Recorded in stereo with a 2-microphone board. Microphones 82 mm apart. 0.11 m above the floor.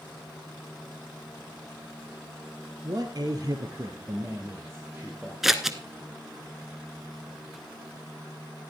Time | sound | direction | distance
2.8 | a man speaking | 45° right (ahead or behind) | 1.6 m
5.4 | scissors | 5° right (ahead or behind) | 0.9 m